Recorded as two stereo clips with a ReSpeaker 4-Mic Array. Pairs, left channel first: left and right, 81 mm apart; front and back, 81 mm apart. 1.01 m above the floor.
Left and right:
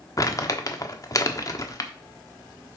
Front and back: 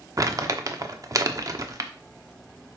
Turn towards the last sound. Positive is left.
turn(degrees=135)